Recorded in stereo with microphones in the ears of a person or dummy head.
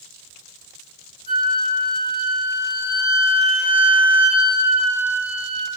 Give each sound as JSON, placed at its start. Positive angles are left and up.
{"t": 1.3, "sound": "a flute", "side_deg": -50, "distance_m": 1.3}